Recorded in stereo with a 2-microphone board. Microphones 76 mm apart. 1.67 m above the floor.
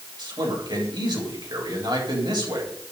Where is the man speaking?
70° right (ahead or behind), 7.5 m.